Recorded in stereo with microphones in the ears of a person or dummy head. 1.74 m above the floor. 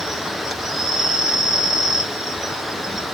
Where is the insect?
Centre (ahead or behind), 1.0 m.